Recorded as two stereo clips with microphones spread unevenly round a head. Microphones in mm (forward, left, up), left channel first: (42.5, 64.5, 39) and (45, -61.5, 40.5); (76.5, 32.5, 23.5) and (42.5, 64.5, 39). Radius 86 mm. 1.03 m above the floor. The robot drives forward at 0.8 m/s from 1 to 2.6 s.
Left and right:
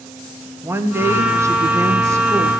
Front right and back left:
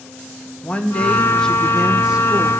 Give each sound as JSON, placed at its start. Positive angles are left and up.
{"t": 0.6, "sound": "a woman speaking", "azimuth_deg": -25, "distance_m": 1.0}